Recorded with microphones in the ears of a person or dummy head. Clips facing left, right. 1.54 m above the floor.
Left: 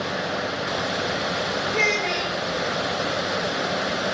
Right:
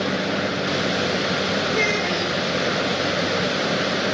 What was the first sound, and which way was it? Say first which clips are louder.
A child speaking: right 2 dB; centre (ahead or behind).